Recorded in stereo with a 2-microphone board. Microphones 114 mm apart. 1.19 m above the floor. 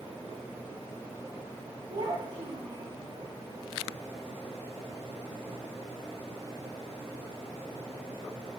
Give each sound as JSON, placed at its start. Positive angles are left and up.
{"t": 1.9, "sound": "a child speaking", "side_deg": -65, "distance_m": 1.3}